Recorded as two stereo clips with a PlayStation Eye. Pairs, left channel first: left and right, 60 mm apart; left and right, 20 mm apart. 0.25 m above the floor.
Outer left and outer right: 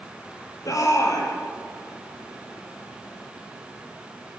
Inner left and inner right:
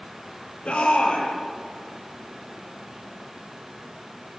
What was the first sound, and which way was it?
A shout, 65° left (ahead or behind).